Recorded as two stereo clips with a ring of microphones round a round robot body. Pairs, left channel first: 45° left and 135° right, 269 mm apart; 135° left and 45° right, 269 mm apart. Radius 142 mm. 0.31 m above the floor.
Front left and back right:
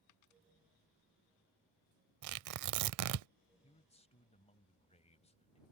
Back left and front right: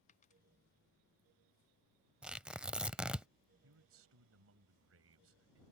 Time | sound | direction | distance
0.1 | a dropped coin | 70° left | ?
2.2 | tearing paper | 130° right | ?
3.6 | a man speaking | 20° right | ?